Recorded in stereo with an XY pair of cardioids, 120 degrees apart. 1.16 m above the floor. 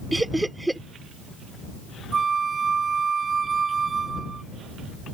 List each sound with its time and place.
0.1 s laughter: 5° right
2.1 s a flute: 30° right